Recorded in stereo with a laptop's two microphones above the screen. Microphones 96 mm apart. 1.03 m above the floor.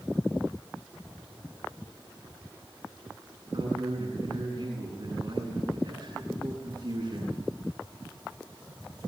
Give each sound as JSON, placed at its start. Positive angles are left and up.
{"t": 3.5, "sound": "a man speaking", "side_deg": -50, "distance_m": 8.5}